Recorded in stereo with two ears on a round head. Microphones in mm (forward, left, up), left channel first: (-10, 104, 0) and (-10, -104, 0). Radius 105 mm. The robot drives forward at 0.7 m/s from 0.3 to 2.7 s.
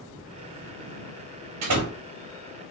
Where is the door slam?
80° right, 2.5 m.